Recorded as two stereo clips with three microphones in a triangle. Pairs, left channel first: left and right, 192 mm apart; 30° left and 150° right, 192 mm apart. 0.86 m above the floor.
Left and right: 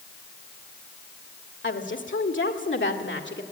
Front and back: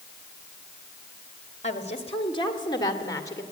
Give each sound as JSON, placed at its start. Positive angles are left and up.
{"t": 1.6, "sound": "a woman speaking", "azimuth_deg": 80, "distance_m": 1.5}